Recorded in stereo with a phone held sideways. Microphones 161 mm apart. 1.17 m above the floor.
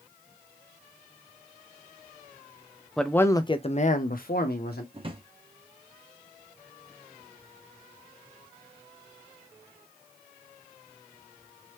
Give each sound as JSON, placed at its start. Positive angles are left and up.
{"t": 3.0, "sound": "a man speaking", "side_deg": 0, "distance_m": 0.6}
{"t": 4.9, "sound": "a drawer", "side_deg": -35, "distance_m": 0.7}